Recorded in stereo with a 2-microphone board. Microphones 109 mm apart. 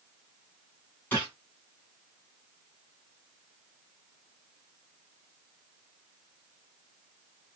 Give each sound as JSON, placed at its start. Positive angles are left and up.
{"t": 1.1, "sound": "a gunshot", "side_deg": 15, "distance_m": 1.9}